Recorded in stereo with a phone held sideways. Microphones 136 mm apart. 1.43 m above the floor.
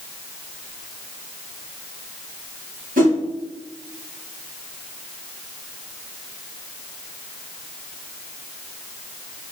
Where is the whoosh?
85° right, 1.8 m.